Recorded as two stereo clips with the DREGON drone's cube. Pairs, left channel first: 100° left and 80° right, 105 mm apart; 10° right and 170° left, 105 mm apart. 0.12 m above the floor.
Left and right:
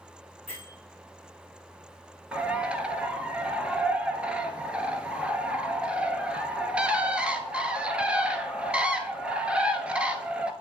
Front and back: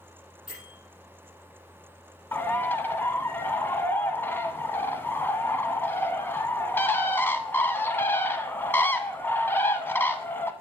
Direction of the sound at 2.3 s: 25° right.